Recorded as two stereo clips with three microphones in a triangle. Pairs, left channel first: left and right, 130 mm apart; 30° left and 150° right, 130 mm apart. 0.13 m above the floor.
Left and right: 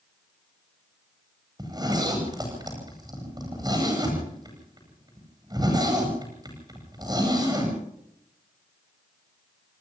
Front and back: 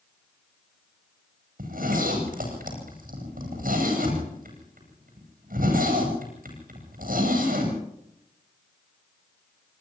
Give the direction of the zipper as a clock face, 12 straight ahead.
5 o'clock.